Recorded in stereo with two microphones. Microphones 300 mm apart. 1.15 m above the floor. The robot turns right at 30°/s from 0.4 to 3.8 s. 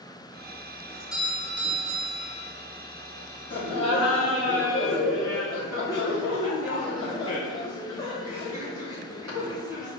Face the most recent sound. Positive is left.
turn(degrees=60)  # may be behind; listen again after turning